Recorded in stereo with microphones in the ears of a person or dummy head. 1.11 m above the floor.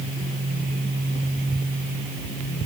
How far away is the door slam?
No door slam in this recording.